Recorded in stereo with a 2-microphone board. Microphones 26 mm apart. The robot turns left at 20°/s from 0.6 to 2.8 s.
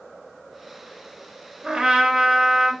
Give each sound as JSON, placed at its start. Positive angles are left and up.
{"t": 1.6, "sound": "a trumpet", "side_deg": -20, "distance_m": 0.8}